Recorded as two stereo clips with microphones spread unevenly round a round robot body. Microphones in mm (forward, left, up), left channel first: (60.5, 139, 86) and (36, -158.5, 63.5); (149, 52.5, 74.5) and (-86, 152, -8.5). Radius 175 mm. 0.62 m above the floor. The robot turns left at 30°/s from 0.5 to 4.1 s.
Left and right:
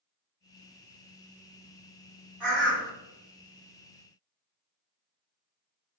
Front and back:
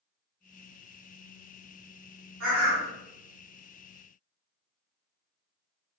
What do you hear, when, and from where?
2.4 s a bird: 175° right, 1.5 m; by 2.9 s 170° left, 1.5 m